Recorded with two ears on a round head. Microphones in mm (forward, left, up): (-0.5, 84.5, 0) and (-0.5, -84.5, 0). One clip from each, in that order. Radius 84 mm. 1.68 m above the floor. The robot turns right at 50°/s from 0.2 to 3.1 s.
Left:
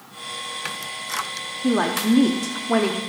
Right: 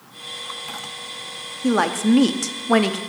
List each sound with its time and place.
1.6 s a woman speaking: 135° right, 0.7 m; by 3.0 s 70° right, 0.7 m